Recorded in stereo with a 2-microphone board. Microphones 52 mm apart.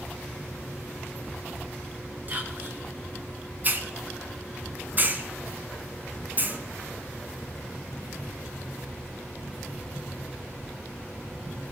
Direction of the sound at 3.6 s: 40° right (ahead or behind).